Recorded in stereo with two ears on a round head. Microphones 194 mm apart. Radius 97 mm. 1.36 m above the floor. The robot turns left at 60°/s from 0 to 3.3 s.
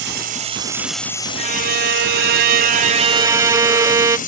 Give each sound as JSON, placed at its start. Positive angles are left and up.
{"t": 0.0, "sound": "running water", "azimuth_deg": -125}
{"t": 1.4, "sound": "a violin", "azimuth_deg": -45}